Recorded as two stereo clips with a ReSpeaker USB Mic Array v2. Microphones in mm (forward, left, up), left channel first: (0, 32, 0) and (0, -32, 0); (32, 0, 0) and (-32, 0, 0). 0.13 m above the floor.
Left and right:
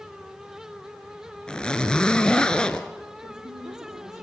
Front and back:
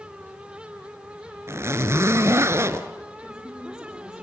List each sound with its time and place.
1.5 s a zipper: 160° left, 1.1 m
3.2 s a woman speaking: 95° right, 8.5 m